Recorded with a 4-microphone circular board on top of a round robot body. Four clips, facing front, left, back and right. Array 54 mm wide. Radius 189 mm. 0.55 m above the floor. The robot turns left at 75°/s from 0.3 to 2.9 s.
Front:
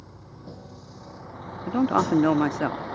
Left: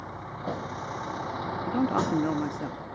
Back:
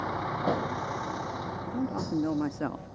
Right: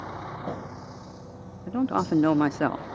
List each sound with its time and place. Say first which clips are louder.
0.0 s a vehicle: right 1 dB, back 16 dB; 175° right; by 3.0 s 10° right
1.7 s a man speaking: right 2 dB, front 12 dB; 10° left; by 3.0 s 80° right